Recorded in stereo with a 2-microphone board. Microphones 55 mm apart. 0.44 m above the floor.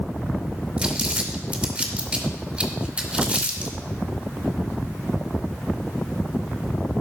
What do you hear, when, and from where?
0.8 s crumpling: 25° right (ahead or behind), 1.8 m